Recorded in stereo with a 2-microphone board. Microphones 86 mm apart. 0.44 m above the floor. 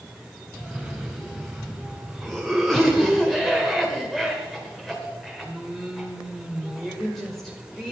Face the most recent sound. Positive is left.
turn(degrees=5)  # may be behind; listen again after turning